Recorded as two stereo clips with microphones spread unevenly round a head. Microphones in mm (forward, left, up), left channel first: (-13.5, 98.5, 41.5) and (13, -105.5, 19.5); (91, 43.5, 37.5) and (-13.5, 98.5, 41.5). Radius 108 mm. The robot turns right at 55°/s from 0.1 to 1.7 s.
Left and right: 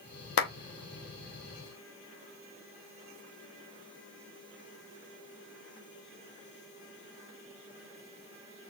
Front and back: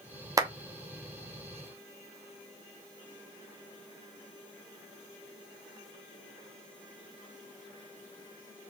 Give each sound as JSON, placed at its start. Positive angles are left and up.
{"t": 0.4, "sound": "a clap", "azimuth_deg": 100, "distance_m": 0.8}